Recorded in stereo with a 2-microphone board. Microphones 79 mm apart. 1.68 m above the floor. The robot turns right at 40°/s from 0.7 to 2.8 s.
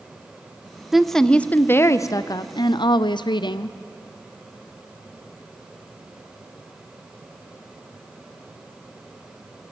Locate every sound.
0.9 s a woman speaking: 5° right, 0.6 m; by 3.8 s 70° left, 0.6 m